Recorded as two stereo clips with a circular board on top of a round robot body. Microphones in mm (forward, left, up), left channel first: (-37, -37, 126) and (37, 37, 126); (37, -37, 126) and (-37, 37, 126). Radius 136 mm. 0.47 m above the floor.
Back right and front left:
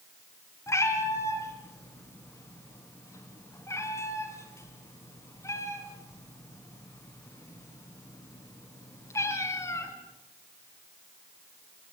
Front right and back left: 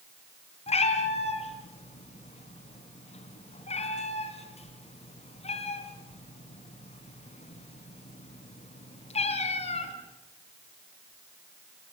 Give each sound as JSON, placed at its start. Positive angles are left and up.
{"t": 0.7, "sound": "a cat meowing", "azimuth_deg": -70, "distance_m": 3.0}